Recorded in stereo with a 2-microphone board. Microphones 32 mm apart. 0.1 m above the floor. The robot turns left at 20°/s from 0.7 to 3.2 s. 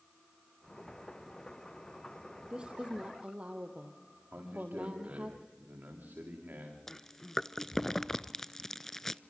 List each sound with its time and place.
2.5 s a woman speaking: 30° right (ahead or behind), 3 m; by 5.3 s 40° right (ahead or behind), 3 m
4.3 s a man speaking: 85° right, 8.5 m
6.9 s chewing: 15° left (ahead or behind), 0.5 m